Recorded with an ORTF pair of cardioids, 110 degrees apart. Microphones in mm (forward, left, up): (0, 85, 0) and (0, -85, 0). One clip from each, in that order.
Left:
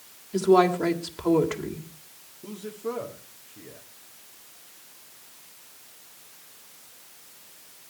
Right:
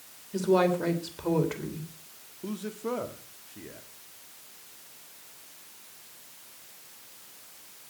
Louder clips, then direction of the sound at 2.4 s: Left 1 dB; 20° right.